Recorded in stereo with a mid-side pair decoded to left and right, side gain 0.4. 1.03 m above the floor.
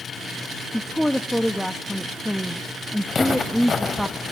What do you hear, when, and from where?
0.7 s a woman speaking: 5° left, 0.9 m
3.1 s footsteps: 40° left, 4.5 m